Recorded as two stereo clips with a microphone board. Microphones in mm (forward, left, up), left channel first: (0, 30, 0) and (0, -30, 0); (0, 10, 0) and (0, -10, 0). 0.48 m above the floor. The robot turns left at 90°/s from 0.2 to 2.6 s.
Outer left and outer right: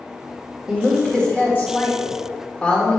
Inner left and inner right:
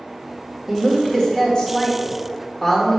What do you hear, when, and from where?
0.7 s a woman speaking: 160° right, 1.5 m; by 3.0 s 30° left, 1.5 m